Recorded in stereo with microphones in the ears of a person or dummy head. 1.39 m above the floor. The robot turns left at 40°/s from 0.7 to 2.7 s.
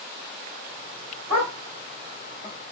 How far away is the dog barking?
About 3 m.